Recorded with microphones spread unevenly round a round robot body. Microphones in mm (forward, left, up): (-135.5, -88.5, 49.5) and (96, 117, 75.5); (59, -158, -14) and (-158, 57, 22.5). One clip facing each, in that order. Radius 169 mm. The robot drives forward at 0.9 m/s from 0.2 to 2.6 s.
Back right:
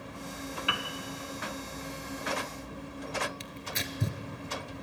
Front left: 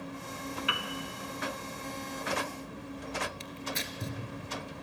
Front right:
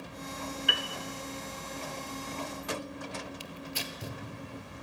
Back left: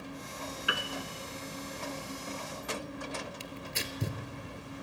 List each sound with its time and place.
0.7 s a piano: 145° right, 1.3 m; by 0.8 s 150° right, 1.4 m
3.4 s tearing paper: 160° right, 1.7 m